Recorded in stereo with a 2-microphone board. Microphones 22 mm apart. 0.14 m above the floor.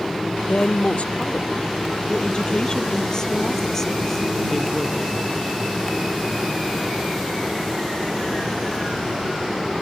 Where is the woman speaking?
65° left (ahead or behind); by 5.1 s centre (ahead or behind).